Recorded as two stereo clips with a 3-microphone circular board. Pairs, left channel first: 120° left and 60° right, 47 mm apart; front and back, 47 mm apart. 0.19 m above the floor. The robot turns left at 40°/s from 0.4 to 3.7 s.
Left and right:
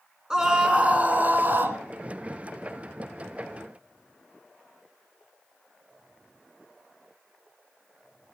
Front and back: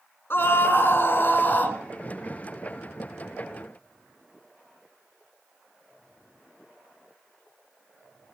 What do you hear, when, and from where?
0.3 s a scream: 10° left, 2.5 m; by 1.8 s 45° right, 2.5 m